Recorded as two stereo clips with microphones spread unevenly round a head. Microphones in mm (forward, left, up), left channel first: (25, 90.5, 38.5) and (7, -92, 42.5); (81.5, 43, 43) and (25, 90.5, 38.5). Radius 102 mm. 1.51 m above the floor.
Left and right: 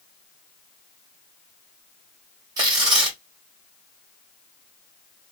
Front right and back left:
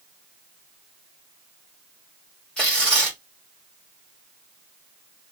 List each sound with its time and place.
2.6 s tearing paper: 95° right, 1.0 m